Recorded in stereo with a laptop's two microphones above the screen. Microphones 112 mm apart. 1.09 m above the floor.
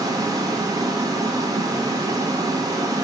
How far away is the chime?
I don't hear a chime.